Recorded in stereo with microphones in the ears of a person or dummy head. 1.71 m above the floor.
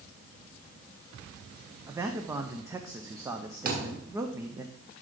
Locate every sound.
1.9 s a man speaking: 15° right (ahead or behind), 0.7 m
3.6 s a thud: 45° right (ahead or behind), 2.5 m